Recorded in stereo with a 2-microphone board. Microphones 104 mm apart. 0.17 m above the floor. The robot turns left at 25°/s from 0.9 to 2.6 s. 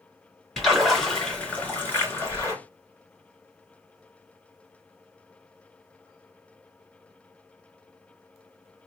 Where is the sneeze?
I don't hear a sneeze.